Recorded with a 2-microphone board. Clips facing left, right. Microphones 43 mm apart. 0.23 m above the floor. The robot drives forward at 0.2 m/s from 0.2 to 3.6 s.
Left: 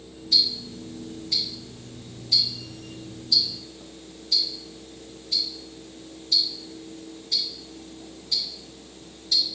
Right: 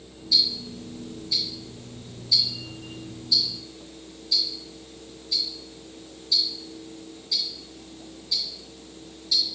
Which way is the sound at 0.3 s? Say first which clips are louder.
Even; 50° left (ahead or behind).